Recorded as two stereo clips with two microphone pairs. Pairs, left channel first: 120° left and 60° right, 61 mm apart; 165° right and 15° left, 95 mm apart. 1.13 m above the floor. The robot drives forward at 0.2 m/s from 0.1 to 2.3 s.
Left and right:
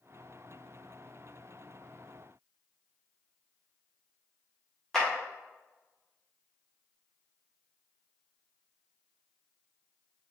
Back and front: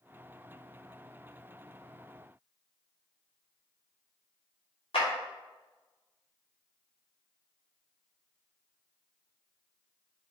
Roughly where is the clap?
Behind right.